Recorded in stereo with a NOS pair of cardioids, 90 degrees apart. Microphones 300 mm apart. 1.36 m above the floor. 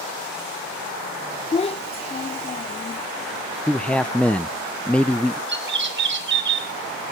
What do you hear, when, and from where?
1.5 s a child speaking: 20° left, 0.5 m
3.7 s a man speaking: 5° left, 0.8 m
5.5 s a bird: 40° right, 4 m